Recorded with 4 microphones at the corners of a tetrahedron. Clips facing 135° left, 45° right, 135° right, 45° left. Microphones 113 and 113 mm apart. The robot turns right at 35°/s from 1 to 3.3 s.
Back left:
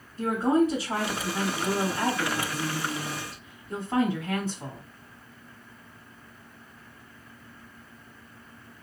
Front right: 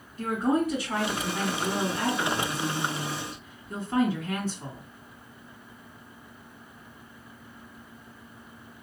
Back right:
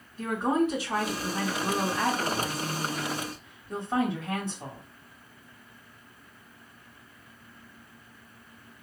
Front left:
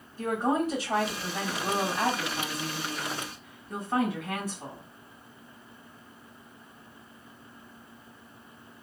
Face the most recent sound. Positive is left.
turn(degrees=165)